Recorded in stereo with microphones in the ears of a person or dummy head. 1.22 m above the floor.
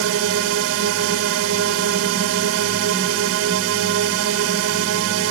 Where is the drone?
65° right (ahead or behind).